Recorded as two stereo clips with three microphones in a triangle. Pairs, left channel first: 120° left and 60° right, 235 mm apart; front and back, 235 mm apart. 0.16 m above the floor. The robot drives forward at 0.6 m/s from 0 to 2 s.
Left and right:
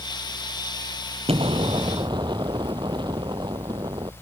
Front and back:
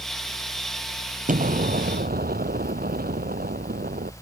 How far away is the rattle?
I don't hear a rattle.